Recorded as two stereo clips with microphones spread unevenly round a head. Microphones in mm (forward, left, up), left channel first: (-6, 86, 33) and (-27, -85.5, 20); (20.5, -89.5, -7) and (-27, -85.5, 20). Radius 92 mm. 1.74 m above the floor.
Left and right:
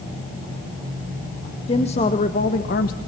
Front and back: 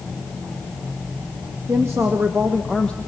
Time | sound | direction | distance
1.7 | a woman speaking | 135° left | 2 m